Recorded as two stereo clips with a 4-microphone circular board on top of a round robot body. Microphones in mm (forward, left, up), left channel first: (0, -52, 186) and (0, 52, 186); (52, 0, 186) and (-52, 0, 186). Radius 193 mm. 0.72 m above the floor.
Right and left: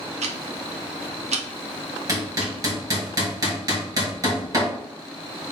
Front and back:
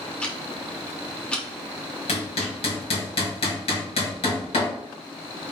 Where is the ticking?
80° left, 0.6 m.